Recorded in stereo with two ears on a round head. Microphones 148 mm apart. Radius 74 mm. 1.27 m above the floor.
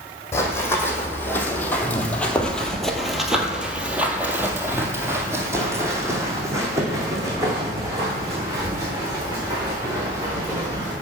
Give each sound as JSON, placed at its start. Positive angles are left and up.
{"t": 0.3, "sound": "running footsteps", "side_deg": 15, "distance_m": 2.0}